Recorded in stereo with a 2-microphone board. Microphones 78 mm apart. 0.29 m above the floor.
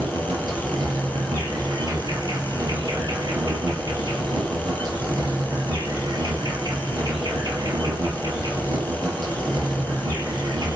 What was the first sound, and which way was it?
An insect, 65° right (ahead or behind).